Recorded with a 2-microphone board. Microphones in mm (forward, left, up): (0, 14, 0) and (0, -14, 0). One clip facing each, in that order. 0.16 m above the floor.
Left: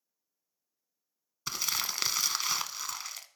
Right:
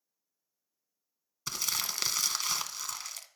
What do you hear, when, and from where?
1.5 s crumpling: 10° left (ahead or behind), 0.6 m